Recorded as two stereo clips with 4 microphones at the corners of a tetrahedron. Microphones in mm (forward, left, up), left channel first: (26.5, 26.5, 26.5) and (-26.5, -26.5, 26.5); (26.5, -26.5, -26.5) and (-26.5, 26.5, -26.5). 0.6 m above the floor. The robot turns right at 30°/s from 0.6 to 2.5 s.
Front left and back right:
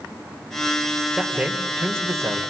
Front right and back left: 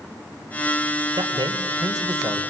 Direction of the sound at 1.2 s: 145° left.